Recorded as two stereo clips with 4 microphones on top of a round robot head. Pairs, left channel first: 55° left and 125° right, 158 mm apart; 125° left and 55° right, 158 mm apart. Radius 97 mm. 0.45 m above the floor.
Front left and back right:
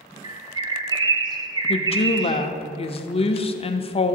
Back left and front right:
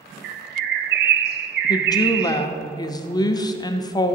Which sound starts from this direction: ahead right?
A bird, at 0.2 s.